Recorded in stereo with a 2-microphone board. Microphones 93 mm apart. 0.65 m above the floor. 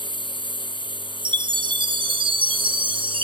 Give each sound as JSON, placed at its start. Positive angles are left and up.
{"t": 0.0, "sound": "a lawn mower", "side_deg": 60}
{"t": 1.2, "sound": "a chime", "side_deg": -65}